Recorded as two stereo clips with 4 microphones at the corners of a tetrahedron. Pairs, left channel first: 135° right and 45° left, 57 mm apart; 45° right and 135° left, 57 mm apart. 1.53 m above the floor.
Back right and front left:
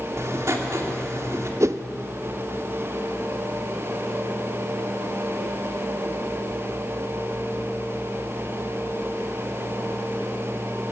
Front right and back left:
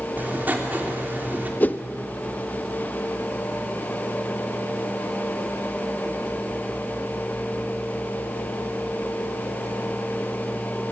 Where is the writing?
80° left, 3 m.